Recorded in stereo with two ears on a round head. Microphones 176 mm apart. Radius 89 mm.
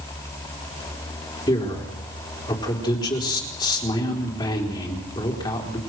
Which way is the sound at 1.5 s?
25° left (ahead or behind).